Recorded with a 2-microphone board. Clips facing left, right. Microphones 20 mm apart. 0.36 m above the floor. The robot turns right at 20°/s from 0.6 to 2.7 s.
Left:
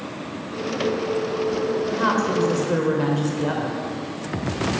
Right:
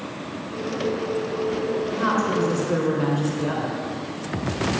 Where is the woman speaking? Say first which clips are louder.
Left 1 dB; 20° left (ahead or behind), 1.1 m; by 3.8 s 15° left (ahead or behind), 1.1 m.